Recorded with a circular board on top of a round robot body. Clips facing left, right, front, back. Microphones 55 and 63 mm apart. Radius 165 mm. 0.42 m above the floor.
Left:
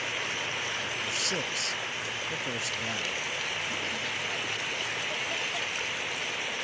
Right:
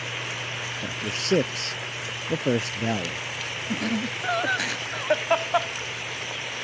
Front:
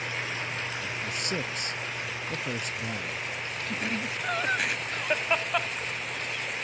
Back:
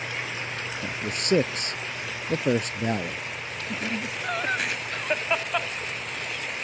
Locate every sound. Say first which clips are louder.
0.8 s a man speaking: right 2 dB, back 3 dB; 140° right
3.7 s laughter: right 5 dB, back 2 dB; 90° right